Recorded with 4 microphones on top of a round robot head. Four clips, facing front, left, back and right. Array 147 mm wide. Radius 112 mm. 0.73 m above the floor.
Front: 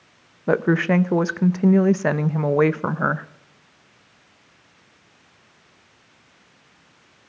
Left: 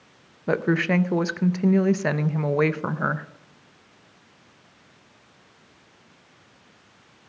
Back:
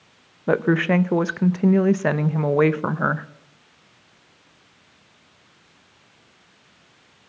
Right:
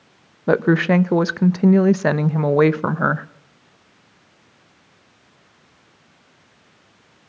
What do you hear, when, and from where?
0.5 s a woman speaking: 90° right, 0.5 m